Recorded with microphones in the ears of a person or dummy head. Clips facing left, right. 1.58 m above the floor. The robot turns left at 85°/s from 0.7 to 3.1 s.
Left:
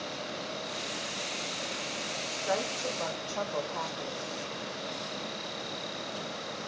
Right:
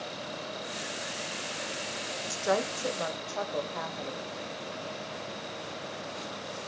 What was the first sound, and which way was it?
A woman speaking, 105° right.